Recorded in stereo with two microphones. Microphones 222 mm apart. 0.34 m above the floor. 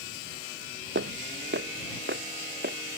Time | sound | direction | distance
0.9 | footsteps | 65° right (ahead or behind) | ?